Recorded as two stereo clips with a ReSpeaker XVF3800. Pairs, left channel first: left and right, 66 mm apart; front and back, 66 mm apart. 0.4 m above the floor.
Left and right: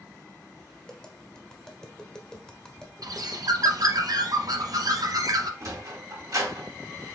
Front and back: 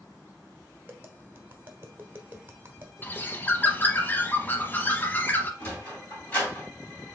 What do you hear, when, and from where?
0.9 s tapping: 160° left, 1.0 m
3.0 s a bird: 60° right, 0.7 m
5.6 s a sliding door: 65° right, 3.5 m